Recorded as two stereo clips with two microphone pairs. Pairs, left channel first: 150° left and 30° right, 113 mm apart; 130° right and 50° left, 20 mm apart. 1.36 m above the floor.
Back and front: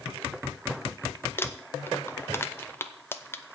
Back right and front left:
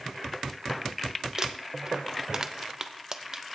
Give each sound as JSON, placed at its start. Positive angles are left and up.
{"t": 1.4, "sound": "crumpling", "azimuth_deg": 95, "distance_m": 0.6}